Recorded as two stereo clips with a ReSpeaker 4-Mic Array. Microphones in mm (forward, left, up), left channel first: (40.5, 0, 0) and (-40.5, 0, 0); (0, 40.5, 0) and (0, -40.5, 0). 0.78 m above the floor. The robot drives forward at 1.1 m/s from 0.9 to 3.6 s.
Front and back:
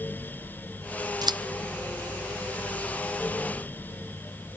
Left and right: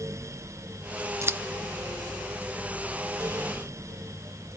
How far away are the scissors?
About 0.5 m.